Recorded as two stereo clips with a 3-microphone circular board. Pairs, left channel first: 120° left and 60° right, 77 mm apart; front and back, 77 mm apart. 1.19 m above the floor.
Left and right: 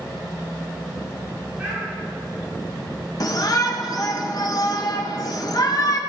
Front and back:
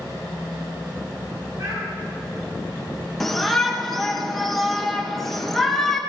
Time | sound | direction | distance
1.6 | a child speaking | 135° right | 5 m
3.2 | a shout | 85° left | 1.6 m